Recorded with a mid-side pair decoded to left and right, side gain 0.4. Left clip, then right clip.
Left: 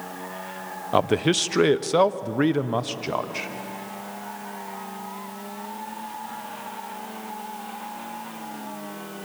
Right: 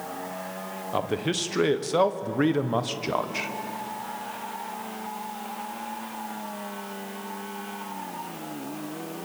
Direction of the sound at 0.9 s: 55° left.